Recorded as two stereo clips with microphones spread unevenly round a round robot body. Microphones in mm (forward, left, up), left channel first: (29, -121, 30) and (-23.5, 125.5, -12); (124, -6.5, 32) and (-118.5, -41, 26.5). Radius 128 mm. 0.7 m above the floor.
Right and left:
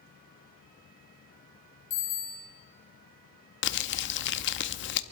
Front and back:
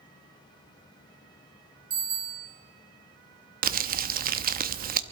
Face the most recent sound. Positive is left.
turn(degrees=-125)